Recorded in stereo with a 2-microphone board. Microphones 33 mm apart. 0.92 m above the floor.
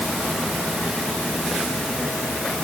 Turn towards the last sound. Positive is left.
No sound to turn to.